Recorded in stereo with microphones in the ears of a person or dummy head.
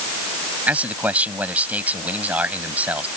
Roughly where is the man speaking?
Centre.